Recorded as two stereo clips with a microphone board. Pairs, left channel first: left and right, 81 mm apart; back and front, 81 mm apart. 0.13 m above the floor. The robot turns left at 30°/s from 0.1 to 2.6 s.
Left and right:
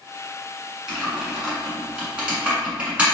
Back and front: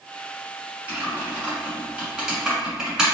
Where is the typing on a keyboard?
10° right, 1.3 m; by 3.0 s 65° right, 1.3 m.